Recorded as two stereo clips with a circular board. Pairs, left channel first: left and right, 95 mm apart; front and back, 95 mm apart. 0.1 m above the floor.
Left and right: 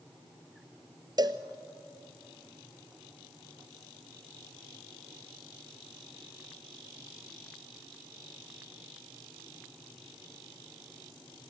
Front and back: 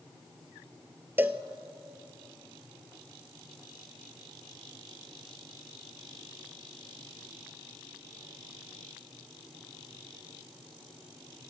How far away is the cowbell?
About 0.9 m.